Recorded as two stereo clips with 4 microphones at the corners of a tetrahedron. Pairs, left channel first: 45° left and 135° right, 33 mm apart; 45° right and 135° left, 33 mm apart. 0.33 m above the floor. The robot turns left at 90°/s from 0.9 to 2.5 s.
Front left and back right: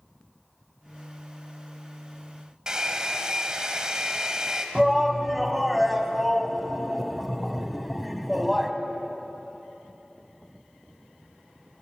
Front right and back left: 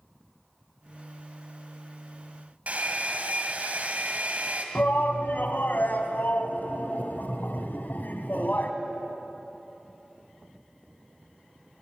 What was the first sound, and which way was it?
A hair dryer, 160° left.